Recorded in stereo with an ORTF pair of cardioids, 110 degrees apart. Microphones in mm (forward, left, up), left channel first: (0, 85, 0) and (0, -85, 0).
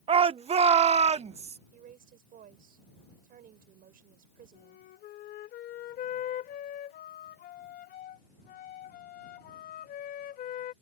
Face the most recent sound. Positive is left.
turn(degrees=60)